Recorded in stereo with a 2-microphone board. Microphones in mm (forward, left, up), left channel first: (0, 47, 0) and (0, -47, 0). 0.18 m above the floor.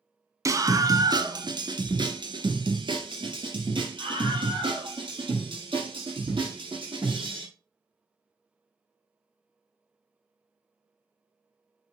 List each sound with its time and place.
0.5 s a scream: 35° right (ahead or behind), 1.1 m; by 7.4 s 60° right (ahead or behind), 6 m